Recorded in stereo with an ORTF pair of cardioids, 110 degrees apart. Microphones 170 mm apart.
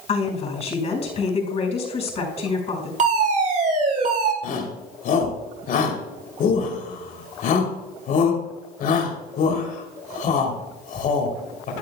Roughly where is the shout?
Ahead left.